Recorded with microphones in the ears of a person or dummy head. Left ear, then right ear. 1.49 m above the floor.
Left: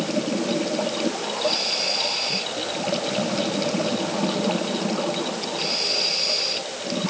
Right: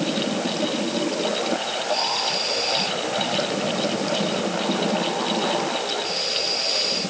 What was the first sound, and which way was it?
Only background noise.